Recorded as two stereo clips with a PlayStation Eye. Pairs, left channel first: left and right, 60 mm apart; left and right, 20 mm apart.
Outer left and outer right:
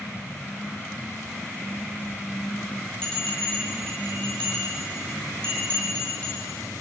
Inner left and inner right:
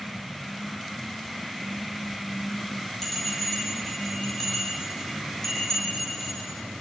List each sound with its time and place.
3.0 s a bell: 20° left (ahead or behind), 8 m